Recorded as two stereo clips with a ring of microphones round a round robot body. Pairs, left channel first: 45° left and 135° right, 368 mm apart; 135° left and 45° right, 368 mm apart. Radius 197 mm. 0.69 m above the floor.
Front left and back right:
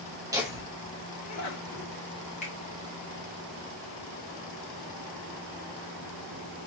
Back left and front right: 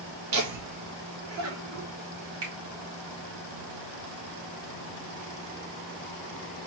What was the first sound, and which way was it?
Laughter, 60° right.